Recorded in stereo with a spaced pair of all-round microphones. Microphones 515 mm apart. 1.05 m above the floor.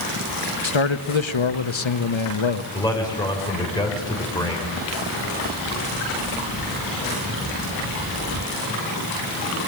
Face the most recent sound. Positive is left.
turn(degrees=10)  # may be behind; listen again after turning